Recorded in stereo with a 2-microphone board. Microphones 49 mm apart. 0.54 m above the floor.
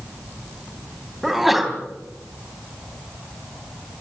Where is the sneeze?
5° right (ahead or behind), 3.5 m.